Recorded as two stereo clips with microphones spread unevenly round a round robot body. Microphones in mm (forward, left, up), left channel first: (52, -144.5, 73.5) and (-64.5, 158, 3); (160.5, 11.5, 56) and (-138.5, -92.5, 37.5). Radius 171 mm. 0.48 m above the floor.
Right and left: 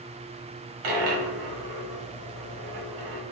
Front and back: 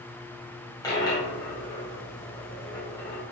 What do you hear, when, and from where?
0.8 s a dropped coin: 100° left, 1.3 m